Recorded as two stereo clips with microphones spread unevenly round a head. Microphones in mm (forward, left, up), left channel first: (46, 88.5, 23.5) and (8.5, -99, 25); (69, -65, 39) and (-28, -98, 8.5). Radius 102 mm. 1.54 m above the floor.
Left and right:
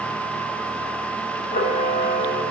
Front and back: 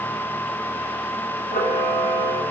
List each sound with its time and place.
1.5 s a camera shutter: 30° left, 6 m